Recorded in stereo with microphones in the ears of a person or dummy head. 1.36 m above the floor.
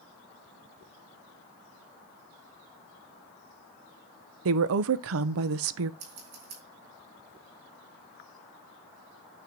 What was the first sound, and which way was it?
A woman speaking, 75° right (ahead or behind).